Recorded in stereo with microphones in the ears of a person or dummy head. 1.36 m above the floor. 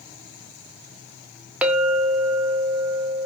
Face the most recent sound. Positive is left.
turn(degrees=-10)  # may be behind; listen again after turning